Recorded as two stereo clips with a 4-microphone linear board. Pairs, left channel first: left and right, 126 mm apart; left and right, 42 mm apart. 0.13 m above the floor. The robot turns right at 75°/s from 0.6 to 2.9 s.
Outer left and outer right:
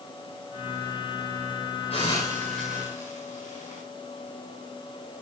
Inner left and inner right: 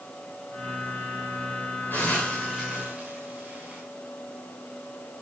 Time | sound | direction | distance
1.9 | a hiss | 50° left (ahead or behind) | 8 m